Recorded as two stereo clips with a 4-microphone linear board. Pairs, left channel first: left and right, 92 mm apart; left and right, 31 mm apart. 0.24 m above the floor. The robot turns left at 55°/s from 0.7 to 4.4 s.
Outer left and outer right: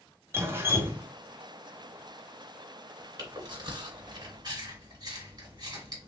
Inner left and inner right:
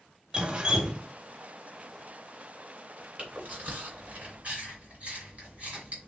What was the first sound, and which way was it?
Dripping, 25° right (ahead or behind).